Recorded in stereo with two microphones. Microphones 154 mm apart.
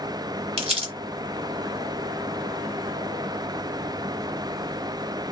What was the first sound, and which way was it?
Crumpling, 35° right (ahead or behind).